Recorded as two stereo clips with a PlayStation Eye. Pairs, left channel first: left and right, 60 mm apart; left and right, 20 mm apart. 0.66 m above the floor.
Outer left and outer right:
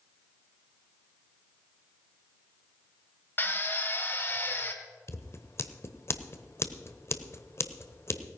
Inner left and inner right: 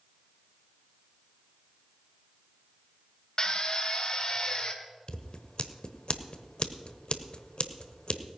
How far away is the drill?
About 1.4 m.